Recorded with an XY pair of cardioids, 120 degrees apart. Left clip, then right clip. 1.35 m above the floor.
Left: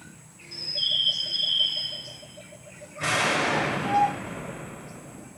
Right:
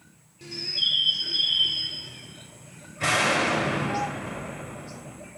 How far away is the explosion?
About 6 m.